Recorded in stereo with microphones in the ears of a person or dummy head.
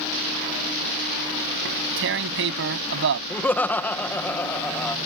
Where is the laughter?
10° left (ahead or behind).